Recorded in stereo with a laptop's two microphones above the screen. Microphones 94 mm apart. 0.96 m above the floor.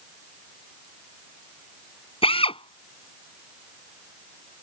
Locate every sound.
2.2 s a drill: 75° left (ahead or behind)